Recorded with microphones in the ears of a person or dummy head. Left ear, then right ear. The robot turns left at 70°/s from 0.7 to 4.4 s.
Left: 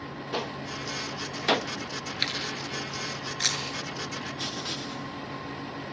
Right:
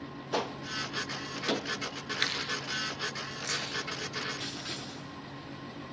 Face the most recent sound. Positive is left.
turn(degrees=10)  # may be behind; listen again after turning